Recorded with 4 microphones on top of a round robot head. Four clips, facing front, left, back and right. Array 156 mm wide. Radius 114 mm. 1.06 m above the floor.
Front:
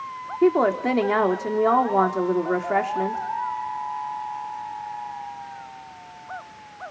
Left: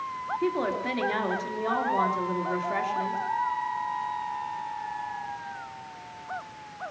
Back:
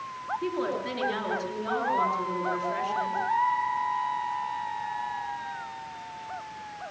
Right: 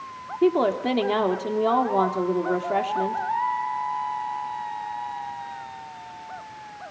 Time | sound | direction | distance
0.4 | a woman speaking | 30° right | 3.5 m